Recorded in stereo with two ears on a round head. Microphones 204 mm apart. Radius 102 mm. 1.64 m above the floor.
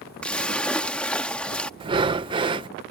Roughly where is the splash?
Centre.